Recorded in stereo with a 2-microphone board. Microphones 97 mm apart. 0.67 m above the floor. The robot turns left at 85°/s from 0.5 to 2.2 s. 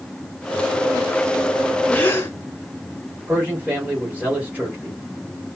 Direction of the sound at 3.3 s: 20° right (ahead or behind).